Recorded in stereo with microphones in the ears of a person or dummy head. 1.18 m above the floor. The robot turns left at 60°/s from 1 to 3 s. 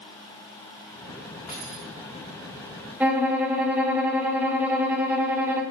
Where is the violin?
10° right (ahead or behind), 1.2 m.